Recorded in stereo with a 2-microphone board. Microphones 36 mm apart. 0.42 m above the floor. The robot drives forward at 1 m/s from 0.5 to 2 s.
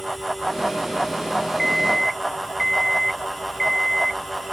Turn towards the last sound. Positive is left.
turn(degrees=0)  # may be behind; listen again after turning